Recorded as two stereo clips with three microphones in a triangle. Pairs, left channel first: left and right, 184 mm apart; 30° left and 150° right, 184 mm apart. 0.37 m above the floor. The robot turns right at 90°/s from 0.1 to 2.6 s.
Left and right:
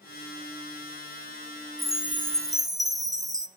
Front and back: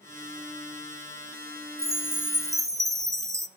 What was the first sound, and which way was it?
A chime, 175° left.